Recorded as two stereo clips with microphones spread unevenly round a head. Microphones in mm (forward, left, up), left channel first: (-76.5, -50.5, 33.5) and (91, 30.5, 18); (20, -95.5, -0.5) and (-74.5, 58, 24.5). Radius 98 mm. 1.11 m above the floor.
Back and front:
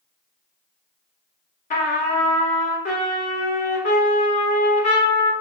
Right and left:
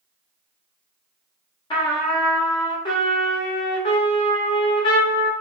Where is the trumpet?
120° right, 0.8 m.